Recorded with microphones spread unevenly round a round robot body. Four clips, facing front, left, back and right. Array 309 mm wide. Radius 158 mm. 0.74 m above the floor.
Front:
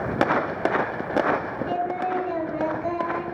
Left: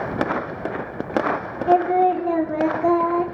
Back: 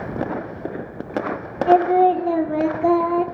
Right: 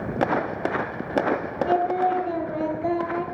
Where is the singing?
145° left, 2 m.